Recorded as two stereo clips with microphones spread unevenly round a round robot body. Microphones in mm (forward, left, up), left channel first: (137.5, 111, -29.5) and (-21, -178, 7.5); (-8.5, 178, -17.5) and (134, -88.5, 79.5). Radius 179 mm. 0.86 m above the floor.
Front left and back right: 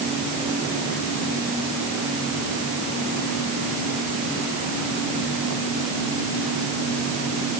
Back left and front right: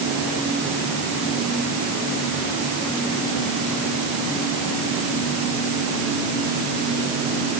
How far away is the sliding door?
I don't hear a sliding door.